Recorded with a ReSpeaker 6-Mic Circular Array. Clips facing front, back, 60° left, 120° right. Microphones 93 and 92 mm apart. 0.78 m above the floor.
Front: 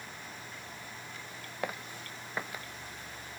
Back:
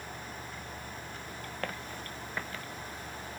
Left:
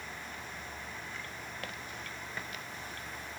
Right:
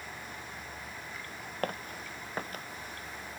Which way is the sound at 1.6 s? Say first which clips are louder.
Front 2 dB, right 6 dB; 80° right.